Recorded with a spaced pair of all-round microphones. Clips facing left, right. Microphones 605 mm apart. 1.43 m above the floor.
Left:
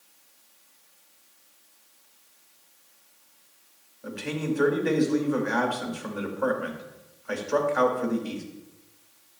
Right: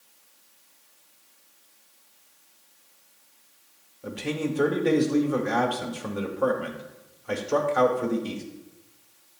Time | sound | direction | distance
4.0 | a man speaking | 55° right (ahead or behind) | 1.2 m